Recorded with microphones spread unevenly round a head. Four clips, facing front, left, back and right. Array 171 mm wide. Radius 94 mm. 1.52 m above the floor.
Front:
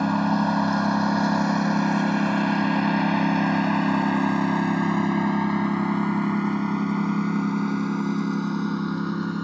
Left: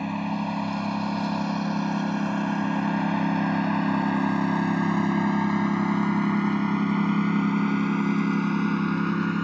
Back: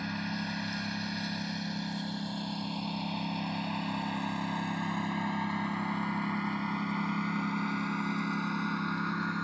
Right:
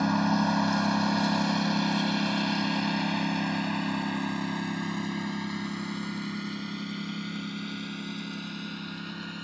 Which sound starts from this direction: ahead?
A lawn mower, at 0.0 s.